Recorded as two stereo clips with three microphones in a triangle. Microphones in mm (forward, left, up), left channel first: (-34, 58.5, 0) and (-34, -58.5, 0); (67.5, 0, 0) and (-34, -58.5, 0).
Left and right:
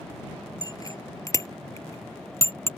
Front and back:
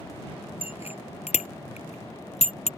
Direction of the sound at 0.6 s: 35° left.